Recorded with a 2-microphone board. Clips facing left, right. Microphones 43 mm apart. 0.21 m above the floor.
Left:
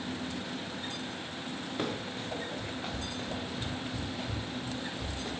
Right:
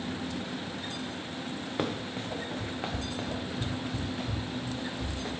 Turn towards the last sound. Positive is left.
turn(degrees=-60)  # may be behind; listen again after turning